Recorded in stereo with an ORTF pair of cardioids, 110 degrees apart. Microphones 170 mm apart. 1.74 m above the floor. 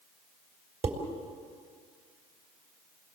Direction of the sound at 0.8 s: 40° right.